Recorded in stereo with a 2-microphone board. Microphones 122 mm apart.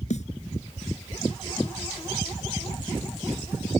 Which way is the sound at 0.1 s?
70° left (ahead or behind).